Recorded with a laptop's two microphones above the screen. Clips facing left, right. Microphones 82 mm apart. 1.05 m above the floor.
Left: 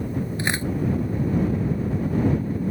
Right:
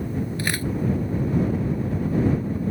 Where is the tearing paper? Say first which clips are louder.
Left 1 dB; 25° left (ahead or behind).